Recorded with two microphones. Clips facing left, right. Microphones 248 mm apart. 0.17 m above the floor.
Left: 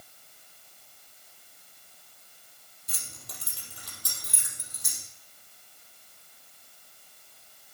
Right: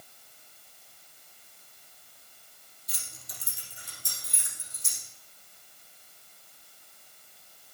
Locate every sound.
2.9 s keys jangling: 60° left (ahead or behind), 3 m; by 5.0 s 75° left (ahead or behind), 4.5 m